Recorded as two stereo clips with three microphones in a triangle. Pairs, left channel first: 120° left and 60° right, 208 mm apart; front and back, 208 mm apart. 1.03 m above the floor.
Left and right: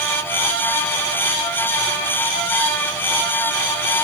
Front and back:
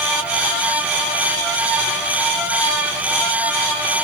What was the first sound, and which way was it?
Only background noise.